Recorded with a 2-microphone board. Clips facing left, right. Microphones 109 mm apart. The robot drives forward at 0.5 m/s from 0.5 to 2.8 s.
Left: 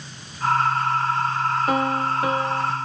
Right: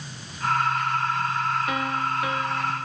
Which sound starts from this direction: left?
A piano, at 1.7 s.